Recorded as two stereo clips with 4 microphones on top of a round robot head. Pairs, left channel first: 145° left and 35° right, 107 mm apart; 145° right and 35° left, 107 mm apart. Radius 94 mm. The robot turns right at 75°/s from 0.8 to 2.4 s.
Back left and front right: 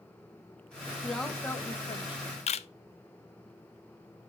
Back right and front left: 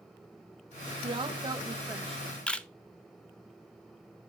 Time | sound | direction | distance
1.0 | a woman speaking | 45° left | 1.1 m
2.5 | a camera shutter | 135° left | 0.7 m